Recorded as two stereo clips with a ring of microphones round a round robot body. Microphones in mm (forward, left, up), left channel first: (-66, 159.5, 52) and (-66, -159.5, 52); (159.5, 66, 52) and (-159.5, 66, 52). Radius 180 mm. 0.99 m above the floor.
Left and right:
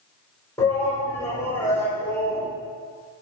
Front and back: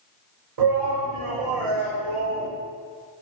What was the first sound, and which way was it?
A shout, 170° left.